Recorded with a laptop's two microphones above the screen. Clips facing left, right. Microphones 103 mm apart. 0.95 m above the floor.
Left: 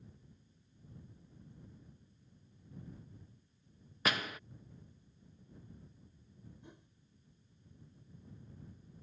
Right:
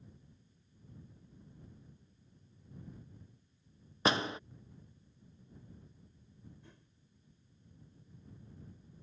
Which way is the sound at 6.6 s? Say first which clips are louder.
Left 4 dB; 20° left (ahead or behind).